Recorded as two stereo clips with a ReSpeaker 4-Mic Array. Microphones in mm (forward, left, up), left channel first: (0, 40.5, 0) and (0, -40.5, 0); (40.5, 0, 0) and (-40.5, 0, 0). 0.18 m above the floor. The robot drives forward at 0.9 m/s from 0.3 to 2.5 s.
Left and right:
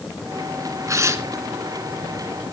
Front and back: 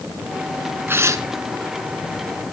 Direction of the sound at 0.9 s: 125° right.